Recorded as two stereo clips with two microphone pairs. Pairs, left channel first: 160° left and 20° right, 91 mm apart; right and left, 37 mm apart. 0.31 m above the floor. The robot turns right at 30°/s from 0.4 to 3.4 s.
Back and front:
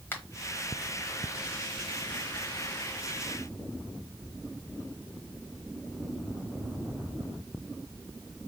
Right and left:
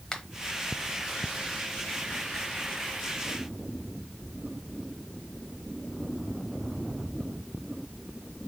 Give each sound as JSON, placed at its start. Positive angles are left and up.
{"t": 0.1, "sound": "a finger snap", "azimuth_deg": -150, "distance_m": 1.2}